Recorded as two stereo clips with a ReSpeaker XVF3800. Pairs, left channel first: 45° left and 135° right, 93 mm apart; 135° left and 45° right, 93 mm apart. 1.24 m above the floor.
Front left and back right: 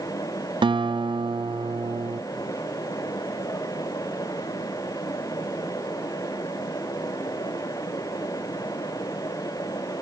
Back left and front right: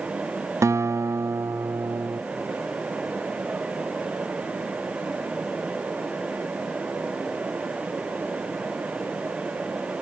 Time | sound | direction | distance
0.6 | a guitar | 105° right | 0.5 m